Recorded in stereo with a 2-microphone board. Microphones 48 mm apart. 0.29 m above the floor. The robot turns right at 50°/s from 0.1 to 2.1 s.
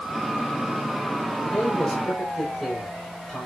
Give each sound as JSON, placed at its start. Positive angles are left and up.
{"t": 1.4, "sound": "a man speaking", "azimuth_deg": 145, "distance_m": 7.5}